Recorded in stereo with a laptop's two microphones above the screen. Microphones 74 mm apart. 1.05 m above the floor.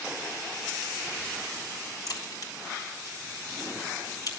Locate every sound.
2.1 s a crack: 60° left (ahead or behind), 4 m